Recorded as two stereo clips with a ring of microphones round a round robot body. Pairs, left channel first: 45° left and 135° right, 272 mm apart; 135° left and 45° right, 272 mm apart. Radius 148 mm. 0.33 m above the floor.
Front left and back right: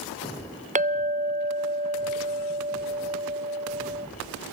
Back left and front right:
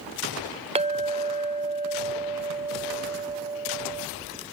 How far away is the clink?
About 0.7 m.